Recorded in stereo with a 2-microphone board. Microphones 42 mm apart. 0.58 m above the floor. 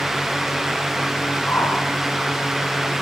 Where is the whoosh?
55° left (ahead or behind), 5 m.